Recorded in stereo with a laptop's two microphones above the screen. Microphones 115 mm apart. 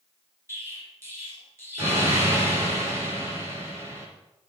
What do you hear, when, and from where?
0.5 s an explosion: 25° right (ahead or behind), 3 m